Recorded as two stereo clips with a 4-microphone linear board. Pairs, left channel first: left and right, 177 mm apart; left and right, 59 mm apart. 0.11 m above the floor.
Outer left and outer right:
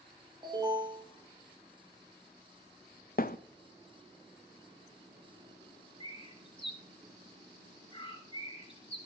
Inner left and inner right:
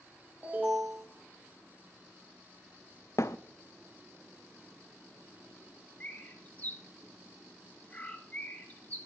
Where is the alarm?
25° right (ahead or behind), 4.5 m.